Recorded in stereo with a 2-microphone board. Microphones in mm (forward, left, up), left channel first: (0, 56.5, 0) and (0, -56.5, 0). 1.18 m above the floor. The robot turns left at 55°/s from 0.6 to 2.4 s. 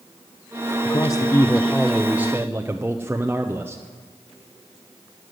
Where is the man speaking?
55° left, 0.7 m; by 3.8 s 30° right, 0.7 m.